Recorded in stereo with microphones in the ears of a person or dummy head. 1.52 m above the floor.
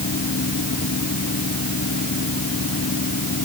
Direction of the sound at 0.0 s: 60° left (ahead or behind).